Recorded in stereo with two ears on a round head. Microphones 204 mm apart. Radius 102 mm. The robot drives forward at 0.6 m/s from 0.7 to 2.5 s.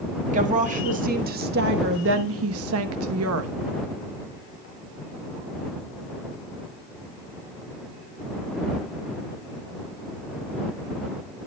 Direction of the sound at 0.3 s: 35° right (ahead or behind).